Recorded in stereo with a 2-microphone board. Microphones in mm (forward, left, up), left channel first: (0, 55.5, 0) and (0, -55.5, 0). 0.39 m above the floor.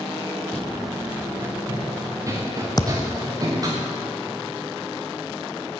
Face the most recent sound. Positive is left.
turn(degrees=35)  # may be behind; listen again after turning